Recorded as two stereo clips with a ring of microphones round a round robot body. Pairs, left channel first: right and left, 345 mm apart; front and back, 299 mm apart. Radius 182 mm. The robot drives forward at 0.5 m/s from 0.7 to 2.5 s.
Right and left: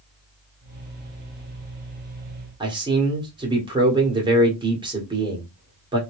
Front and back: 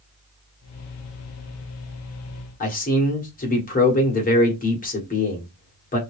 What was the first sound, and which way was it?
A man speaking, 25° left.